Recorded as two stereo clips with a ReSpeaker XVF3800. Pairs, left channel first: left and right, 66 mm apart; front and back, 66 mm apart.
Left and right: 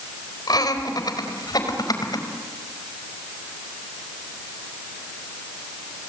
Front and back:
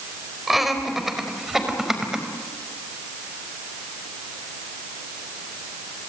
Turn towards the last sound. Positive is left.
turn(degrees=100)